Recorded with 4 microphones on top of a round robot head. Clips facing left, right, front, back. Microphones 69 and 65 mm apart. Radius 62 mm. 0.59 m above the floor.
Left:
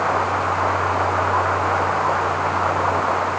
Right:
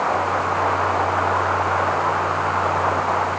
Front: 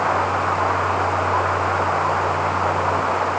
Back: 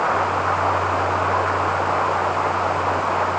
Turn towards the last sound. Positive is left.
No sound to turn to.